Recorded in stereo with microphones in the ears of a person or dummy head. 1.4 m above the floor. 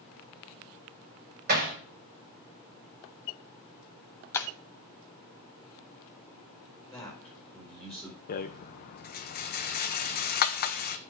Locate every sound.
1.5 s hammering: 45° right (ahead or behind), 4.5 m
4.3 s breaking glass: 15° left (ahead or behind), 0.7 m
6.9 s a man speaking: 5° left (ahead or behind), 4 m
8.3 s a rattle: 45° left (ahead or behind), 0.7 m